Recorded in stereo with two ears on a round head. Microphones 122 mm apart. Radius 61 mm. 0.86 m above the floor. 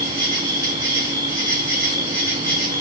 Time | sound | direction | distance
0.0 | an insect | 30° right (ahead or behind) | 2.5 m